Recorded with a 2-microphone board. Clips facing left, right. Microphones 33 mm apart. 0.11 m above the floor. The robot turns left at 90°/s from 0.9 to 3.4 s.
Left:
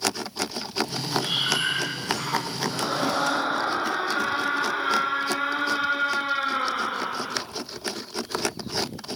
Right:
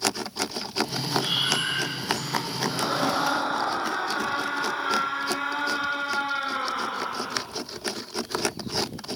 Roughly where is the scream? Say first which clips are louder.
Even; behind right.